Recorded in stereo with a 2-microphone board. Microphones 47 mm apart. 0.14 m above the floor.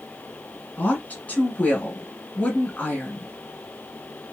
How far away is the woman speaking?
About 1.6 m.